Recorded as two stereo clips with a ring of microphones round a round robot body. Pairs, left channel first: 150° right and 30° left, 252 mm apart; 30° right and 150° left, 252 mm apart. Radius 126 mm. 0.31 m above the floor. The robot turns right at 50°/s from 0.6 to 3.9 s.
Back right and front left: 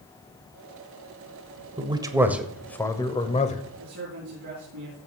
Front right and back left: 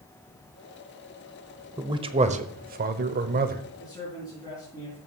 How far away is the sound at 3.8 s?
About 4 m.